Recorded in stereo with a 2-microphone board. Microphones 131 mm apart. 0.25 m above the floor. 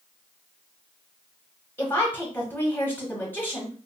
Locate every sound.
1.8 s a woman speaking: 15° left (ahead or behind), 1.1 m